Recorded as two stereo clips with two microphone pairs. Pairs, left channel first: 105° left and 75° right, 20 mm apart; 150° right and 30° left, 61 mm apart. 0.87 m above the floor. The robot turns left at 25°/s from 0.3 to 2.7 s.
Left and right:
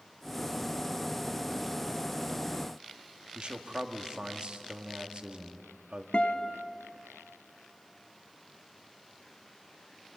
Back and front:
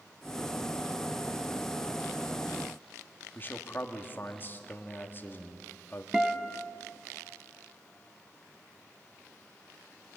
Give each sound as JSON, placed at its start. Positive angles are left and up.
{"t": 3.4, "sound": "a man speaking", "azimuth_deg": -105, "distance_m": 2.0}
{"t": 6.1, "sound": "a guitar", "azimuth_deg": 110, "distance_m": 1.3}